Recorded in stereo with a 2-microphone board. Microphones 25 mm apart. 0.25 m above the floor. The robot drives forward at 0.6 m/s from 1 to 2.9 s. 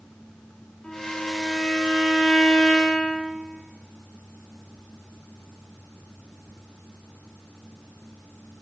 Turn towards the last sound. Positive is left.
turn(degrees=60)  # may be behind; listen again after turning